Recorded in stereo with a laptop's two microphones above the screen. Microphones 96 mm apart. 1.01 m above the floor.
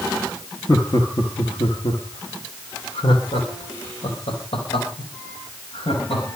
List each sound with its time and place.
0.7 s laughter: 35° left (ahead or behind), 1.4 m; by 6.2 s 80° left, 6.5 m